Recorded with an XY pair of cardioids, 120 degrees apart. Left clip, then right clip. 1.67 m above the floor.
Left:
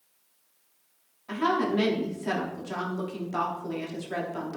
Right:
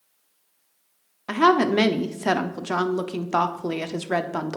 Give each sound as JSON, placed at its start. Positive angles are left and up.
{"t": 1.3, "sound": "a woman speaking", "azimuth_deg": -70, "distance_m": 0.7}